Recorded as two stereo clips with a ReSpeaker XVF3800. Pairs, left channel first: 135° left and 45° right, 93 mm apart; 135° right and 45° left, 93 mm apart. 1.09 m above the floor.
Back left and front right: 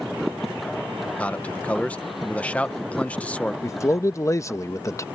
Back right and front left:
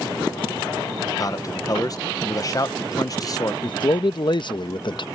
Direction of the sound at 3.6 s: 170° right.